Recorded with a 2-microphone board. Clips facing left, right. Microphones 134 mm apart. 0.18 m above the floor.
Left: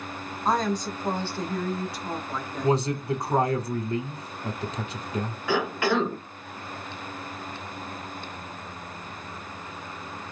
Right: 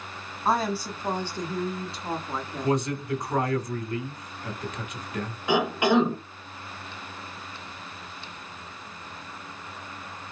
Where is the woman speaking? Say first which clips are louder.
Even; 5° right (ahead or behind), 1.4 m; by 3.6 s 35° right (ahead or behind), 2.0 m.